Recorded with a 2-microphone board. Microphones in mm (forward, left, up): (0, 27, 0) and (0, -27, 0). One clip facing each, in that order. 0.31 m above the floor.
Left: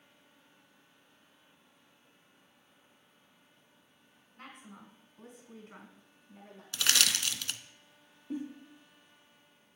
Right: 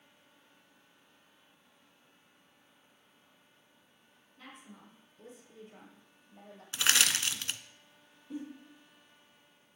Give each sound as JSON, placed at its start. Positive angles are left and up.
{"t": 4.4, "sound": "a woman speaking", "side_deg": 55, "distance_m": 3.5}
{"t": 6.7, "sound": "crushing", "side_deg": -25, "distance_m": 0.6}
{"t": 8.3, "sound": "a giggle", "side_deg": 30, "distance_m": 6.0}